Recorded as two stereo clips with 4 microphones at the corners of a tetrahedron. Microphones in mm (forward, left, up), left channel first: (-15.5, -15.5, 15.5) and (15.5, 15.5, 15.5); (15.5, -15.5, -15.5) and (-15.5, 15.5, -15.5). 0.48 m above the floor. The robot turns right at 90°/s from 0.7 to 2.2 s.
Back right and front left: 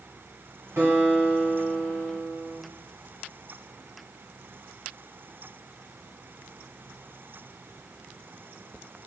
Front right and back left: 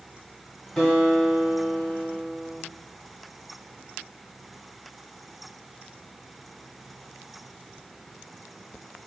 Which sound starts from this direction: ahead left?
A guitar, at 0.8 s.